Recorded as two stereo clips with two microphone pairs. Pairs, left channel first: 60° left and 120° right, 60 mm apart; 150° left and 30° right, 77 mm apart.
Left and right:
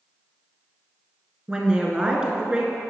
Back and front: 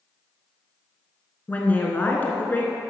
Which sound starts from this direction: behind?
A woman speaking, at 1.5 s.